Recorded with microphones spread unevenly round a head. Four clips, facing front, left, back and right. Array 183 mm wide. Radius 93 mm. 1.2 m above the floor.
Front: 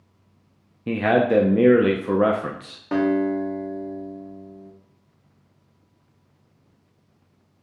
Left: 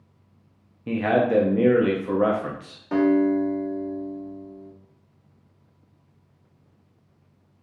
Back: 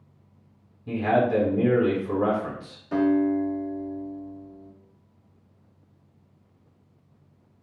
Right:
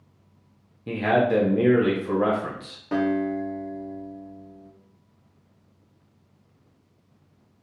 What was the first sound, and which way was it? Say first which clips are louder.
A man speaking: even, front 3 dB; 5° left.